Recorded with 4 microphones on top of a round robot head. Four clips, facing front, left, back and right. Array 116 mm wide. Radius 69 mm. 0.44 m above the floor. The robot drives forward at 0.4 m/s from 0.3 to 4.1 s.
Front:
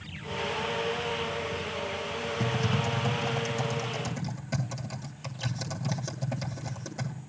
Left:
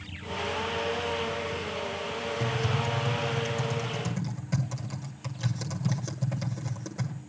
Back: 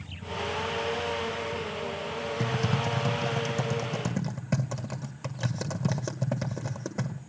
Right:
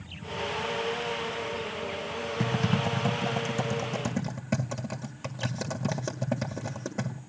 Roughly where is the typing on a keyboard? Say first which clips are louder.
Right 4 dB, even; right.